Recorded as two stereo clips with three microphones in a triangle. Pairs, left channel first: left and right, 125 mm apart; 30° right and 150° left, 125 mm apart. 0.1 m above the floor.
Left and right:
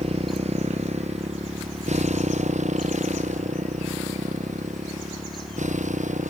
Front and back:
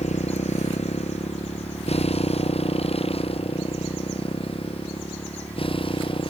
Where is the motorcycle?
55° right; by 6.3 s 75° right.